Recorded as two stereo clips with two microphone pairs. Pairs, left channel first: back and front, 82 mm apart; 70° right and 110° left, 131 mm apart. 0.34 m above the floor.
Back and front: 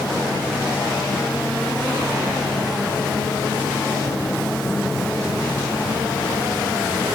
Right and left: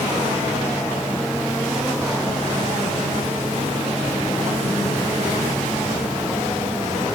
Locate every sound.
Only background noise.